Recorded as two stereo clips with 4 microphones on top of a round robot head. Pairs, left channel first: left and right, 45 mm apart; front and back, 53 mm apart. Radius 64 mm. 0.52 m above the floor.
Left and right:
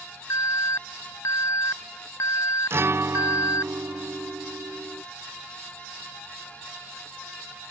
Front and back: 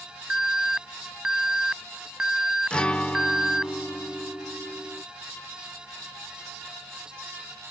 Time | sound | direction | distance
0.3 | an alarm | 105° left | ?
2.7 | a guitar | 65° right | ?